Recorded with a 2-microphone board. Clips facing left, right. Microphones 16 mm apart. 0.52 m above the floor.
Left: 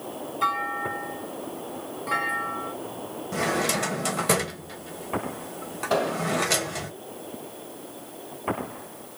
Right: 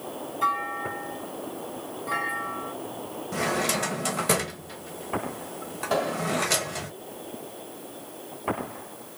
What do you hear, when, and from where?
0.4 s a clunk: 25° left (ahead or behind), 2.5 m
3.3 s a drawer: 5° left (ahead or behind), 1.0 m
5.9 s an explosion: 10° left (ahead or behind), 2.5 m